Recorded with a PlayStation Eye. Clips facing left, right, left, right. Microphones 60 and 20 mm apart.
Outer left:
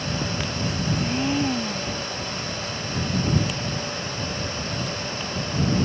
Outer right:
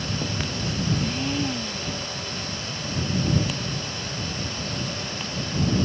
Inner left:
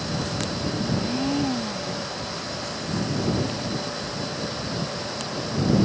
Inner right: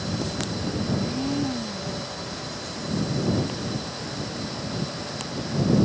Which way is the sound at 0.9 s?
20° left (ahead or behind).